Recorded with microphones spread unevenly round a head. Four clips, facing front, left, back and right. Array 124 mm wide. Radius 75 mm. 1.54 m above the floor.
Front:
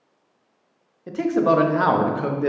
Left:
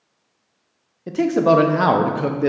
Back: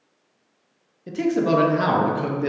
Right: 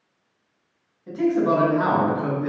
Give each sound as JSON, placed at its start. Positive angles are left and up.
{"t": 1.1, "sound": "a man speaking", "azimuth_deg": 90, "distance_m": 0.6}